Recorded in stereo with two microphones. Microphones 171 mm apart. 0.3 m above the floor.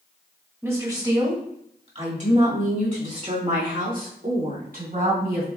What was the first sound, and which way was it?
A woman speaking, 15° right (ahead or behind).